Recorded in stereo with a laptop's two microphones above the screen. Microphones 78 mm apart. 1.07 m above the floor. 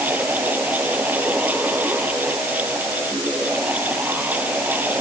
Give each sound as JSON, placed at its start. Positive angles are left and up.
{"t": 0.0, "sound": "a fan", "side_deg": -20}